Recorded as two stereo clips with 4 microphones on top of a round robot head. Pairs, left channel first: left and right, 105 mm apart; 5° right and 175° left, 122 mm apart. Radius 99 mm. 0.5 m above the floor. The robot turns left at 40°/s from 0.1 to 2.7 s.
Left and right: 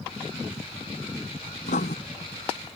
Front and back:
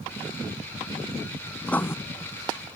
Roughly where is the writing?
Left.